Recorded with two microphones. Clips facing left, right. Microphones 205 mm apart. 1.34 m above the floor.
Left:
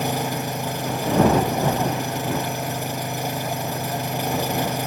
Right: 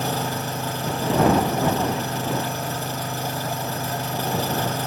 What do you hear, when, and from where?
0.0 s an engine running: 15° left (ahead or behind)